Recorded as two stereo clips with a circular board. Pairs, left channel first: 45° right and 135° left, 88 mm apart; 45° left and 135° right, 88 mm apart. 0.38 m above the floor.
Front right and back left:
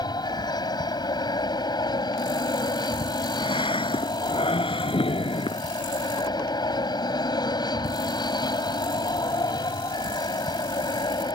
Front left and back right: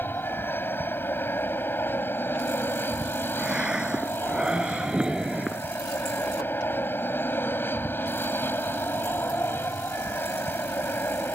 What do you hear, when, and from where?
0.0 s an aircraft: 20° right
3.4 s breathing: 55° right